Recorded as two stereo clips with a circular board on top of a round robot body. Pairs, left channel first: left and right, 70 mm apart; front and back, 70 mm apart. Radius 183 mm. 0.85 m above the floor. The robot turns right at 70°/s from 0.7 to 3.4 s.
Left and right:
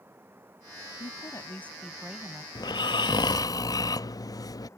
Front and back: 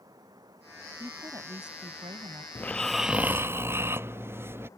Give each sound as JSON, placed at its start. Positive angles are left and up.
{"t": 0.0, "sound": "running water", "azimuth_deg": -150}
{"t": 1.0, "sound": "a woman speaking", "azimuth_deg": 115}
{"t": 2.5, "sound": "snoring", "azimuth_deg": 65}